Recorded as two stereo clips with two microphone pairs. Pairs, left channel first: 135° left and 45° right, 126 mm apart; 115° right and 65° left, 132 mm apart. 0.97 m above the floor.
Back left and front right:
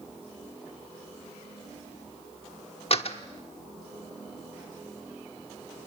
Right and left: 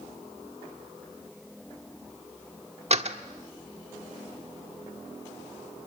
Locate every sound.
2.9 s a door slam: 100° left, 1.3 m